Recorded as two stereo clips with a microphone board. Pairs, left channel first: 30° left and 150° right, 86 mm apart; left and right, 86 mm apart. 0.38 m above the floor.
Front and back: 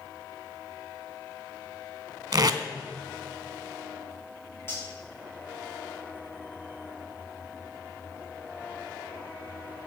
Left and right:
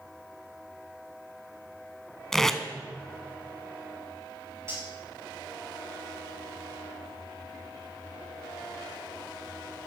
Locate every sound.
2.3 s tape being pulled: 175° left, 0.6 m
4.7 s cutlery clinking: 30° right, 4.5 m